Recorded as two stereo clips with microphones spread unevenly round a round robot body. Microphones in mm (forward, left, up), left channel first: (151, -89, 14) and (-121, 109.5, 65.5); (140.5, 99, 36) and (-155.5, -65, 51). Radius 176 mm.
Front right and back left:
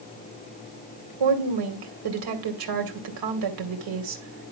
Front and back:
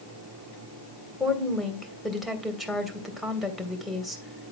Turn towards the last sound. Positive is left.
turn(degrees=120)